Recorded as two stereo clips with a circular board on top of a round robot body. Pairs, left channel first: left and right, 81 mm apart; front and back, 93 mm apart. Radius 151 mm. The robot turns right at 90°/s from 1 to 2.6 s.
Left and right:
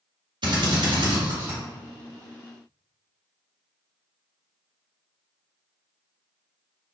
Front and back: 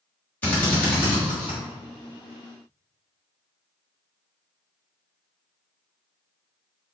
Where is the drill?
70° right, 1.4 m; by 1.6 s 15° right, 1.4 m.